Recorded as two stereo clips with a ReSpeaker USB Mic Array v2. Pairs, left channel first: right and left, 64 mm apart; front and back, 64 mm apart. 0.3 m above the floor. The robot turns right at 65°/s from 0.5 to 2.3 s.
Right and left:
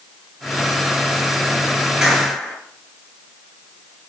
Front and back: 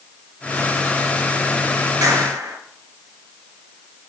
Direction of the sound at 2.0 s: 170° left.